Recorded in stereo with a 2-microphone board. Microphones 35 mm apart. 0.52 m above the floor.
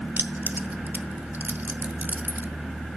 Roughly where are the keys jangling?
Right.